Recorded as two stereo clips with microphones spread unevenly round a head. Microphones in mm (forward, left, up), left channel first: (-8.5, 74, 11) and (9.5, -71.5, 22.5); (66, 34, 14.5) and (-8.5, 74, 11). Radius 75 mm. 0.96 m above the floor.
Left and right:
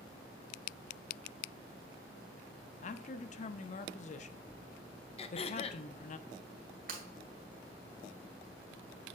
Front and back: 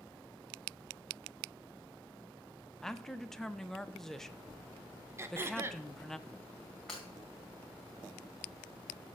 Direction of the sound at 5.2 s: 110° left.